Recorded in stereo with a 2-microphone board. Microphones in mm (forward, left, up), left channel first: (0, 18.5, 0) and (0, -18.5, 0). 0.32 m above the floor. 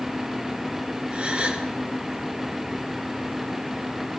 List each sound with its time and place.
1.1 s a gasp: 35° right (ahead or behind), 1.9 m